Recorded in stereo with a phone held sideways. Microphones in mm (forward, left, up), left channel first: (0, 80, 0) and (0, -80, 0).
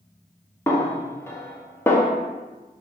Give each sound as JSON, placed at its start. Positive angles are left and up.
{"t": 0.7, "sound": "a snare drum", "side_deg": 15, "distance_m": 0.7}